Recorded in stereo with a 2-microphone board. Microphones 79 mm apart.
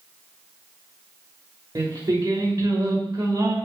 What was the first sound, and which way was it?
Singing, 50° right (ahead or behind).